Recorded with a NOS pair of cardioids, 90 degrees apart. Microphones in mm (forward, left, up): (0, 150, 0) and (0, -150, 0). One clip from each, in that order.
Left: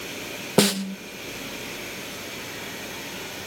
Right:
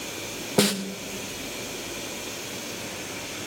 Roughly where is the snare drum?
Ahead left.